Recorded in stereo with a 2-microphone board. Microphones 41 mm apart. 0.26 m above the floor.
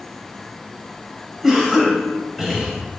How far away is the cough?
About 0.9 m.